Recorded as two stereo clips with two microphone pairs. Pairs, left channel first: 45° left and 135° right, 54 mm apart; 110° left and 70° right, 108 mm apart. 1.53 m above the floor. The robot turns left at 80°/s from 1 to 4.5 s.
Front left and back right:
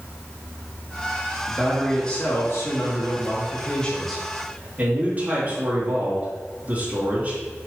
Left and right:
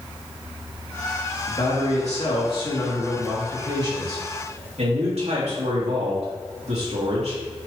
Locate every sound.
1.5 s a man speaking: 165° left, 3 m; by 7.4 s 80° right, 3 m